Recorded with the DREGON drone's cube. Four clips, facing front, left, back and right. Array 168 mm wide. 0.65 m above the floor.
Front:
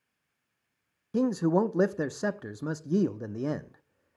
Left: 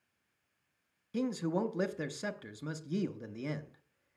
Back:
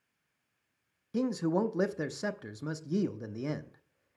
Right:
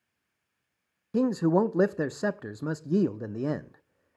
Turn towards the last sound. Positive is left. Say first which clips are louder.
# right 10 dB, front 5 dB
turn(degrees=-60)